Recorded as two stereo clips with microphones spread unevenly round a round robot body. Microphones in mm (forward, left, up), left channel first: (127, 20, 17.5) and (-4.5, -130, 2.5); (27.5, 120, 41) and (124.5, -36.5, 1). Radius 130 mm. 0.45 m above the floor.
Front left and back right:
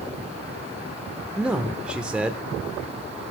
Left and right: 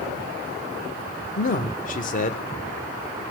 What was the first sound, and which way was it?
A man speaking, 150° left.